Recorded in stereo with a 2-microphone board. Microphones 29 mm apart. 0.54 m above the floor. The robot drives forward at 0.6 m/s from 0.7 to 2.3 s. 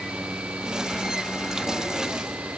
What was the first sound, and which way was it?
Only background noise.